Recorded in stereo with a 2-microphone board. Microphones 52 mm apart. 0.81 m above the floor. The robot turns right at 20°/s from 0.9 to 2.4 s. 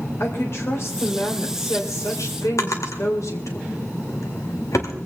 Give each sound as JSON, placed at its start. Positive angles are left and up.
{"t": 0.2, "sound": "a woman speaking", "azimuth_deg": 55, "distance_m": 3.5}
{"t": 2.6, "sound": "a drawer", "side_deg": 80, "distance_m": 1.9}